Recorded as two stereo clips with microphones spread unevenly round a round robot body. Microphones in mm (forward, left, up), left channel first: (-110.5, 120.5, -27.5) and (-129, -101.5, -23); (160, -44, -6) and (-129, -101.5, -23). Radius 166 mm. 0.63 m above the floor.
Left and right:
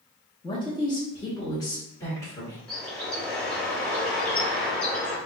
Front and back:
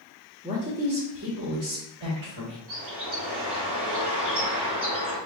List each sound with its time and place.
0.4 s a man speaking: 135° left, 1.0 m; by 2.6 s 160° left, 2 m
2.7 s a bird: 170° left, 2 m